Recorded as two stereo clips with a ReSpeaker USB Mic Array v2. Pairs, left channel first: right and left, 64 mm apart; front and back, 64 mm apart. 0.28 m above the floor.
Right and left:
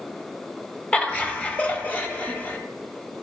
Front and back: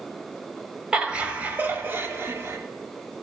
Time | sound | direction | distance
0.9 | laughter | 125° right | 1.3 m